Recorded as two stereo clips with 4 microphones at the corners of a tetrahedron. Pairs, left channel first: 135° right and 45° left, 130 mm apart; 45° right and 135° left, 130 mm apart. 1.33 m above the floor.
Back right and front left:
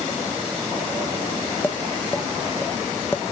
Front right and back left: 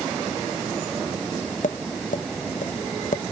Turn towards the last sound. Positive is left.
turn(degrees=-60)